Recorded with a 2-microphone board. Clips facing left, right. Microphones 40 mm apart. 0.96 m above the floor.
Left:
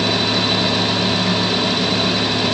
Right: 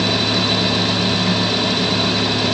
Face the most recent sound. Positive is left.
No sound to turn to.